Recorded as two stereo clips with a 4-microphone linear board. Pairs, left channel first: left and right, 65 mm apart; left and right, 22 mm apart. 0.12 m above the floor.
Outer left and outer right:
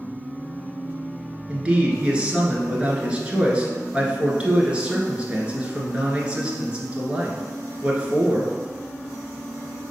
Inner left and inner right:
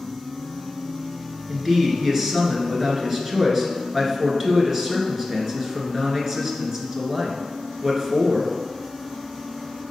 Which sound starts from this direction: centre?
A man speaking, at 1.5 s.